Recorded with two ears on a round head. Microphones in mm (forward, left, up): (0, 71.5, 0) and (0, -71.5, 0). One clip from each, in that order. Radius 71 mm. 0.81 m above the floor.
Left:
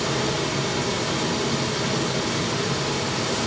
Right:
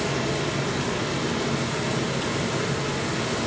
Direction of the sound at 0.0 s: 80° left.